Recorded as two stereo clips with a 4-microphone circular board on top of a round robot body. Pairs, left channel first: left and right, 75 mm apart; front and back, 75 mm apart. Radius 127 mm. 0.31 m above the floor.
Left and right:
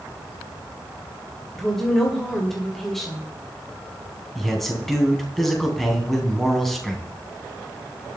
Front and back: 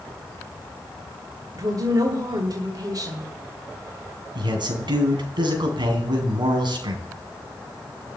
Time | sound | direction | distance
1.6 | a woman speaking | straight behind | 2 m
4.3 | a man speaking | straight behind | 3.5 m